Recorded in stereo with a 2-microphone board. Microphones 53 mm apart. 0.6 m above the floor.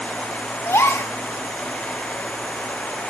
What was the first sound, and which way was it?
A gasp, 55° left (ahead or behind).